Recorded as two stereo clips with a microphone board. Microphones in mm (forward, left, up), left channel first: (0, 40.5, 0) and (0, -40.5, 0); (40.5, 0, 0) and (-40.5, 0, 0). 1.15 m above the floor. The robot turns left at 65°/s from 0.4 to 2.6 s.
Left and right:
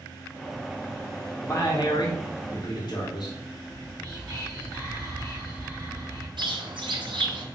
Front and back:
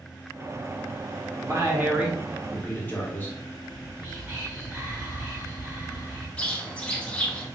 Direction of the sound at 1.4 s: 145° left.